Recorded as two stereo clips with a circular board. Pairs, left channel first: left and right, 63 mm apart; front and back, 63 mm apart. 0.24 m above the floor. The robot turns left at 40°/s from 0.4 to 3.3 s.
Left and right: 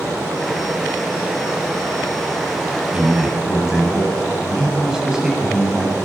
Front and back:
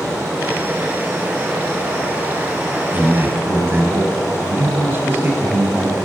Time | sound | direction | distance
2.9 | a man speaking | 150° right | 1.6 m